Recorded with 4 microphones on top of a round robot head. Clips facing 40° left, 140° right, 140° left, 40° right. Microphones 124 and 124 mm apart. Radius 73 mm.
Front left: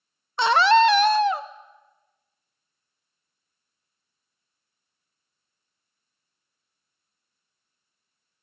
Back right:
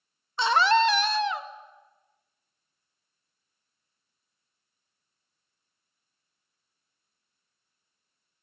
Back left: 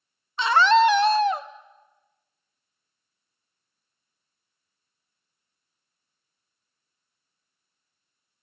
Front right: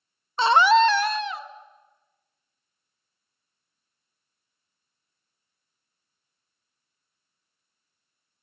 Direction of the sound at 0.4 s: 10° left.